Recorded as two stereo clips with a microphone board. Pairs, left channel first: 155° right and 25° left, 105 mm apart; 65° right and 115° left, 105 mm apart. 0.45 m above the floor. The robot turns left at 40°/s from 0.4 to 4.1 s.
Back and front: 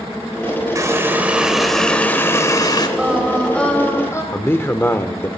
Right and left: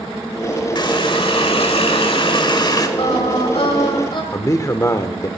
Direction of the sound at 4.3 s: 105° right.